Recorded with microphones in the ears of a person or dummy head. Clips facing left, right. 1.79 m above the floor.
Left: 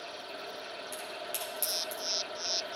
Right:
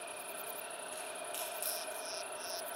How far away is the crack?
About 2 m.